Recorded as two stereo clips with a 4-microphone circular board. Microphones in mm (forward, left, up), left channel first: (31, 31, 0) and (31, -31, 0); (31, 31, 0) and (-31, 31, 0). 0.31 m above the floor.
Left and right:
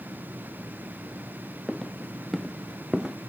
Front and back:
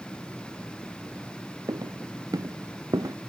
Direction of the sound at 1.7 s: 175° left.